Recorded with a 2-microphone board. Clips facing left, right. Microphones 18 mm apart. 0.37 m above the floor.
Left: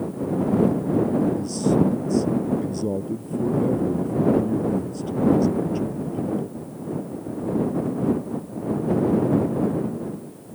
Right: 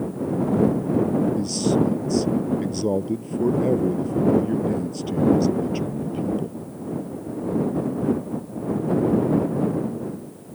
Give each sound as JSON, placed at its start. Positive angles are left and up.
{"t": 1.4, "sound": "a man speaking", "side_deg": -30}